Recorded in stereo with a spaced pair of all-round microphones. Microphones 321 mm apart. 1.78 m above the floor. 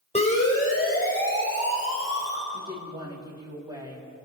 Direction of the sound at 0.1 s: 20° left (ahead or behind).